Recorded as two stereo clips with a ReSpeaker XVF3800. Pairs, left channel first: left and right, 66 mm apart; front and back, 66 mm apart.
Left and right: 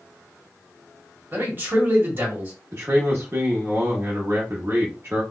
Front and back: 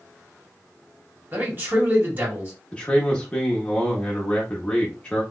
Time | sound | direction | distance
1.3 | a man speaking | 135° right | 1.6 m
2.7 | a man speaking | 65° right | 0.8 m